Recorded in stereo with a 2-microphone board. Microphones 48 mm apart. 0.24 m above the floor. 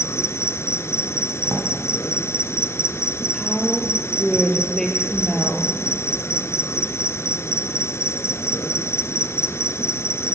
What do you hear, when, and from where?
0.0 s an insect: 65° left (ahead or behind), 1.6 m
1.4 s a drawer: 85° right, 5.5 m
3.3 s a woman speaking: 5° left (ahead or behind), 6 m